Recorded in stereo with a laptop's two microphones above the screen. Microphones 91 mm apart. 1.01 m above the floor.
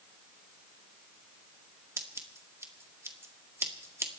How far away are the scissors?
About 1.8 m.